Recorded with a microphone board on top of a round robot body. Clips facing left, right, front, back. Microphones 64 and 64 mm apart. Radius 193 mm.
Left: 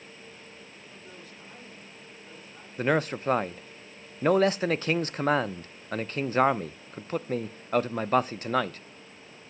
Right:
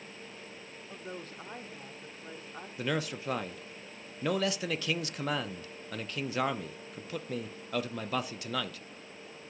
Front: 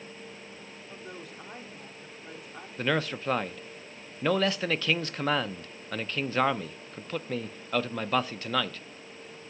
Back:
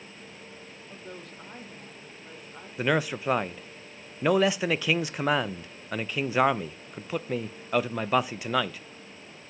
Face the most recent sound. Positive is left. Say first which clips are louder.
# left 8 dB, back 3 dB
turn(degrees=105)